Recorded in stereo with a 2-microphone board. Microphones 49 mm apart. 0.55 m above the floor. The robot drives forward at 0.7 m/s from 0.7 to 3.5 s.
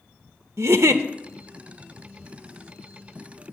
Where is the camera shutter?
I don't hear a camera shutter.